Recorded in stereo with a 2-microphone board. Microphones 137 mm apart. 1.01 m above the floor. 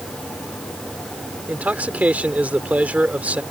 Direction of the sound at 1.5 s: 10° right (ahead or behind).